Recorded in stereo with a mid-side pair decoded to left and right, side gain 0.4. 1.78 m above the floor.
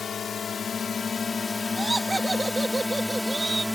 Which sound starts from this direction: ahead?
Laughter, at 1.8 s.